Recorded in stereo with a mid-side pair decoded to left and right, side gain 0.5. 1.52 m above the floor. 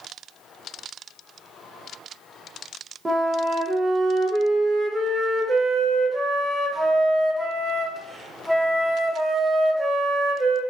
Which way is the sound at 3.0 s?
20° right.